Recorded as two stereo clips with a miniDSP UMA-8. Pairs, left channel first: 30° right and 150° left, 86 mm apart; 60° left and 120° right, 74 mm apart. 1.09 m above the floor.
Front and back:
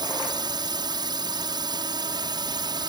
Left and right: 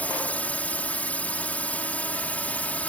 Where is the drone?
130° left.